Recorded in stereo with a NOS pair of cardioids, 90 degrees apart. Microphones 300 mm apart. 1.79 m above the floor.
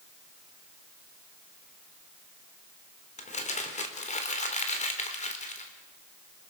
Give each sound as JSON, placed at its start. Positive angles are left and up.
{"t": 3.2, "sound": "crumpling", "azimuth_deg": 25, "distance_m": 4.0}